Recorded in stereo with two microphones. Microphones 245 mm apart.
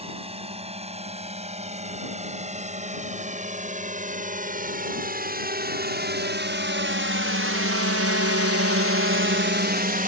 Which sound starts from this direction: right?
A drone, at 0.0 s.